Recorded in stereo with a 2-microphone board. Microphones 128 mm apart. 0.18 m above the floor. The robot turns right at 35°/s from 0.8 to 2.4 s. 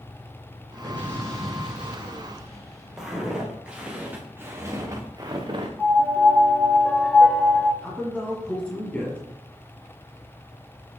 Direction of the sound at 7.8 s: 10° left (ahead or behind).